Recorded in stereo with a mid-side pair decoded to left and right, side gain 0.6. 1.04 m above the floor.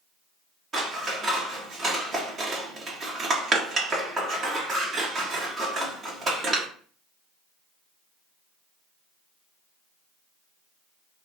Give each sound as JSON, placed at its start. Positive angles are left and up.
{"t": 0.7, "sound": "scissors", "azimuth_deg": -40, "distance_m": 1.5}